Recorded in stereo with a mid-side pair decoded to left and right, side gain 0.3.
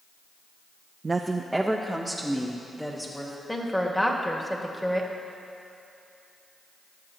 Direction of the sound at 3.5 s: 10° left.